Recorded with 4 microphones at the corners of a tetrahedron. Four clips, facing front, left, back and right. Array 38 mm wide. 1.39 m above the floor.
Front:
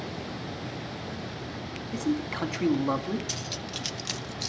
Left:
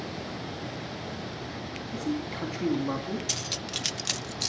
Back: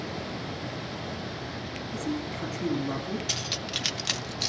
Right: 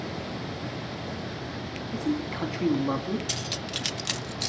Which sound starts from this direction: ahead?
A man speaking, at 1.9 s.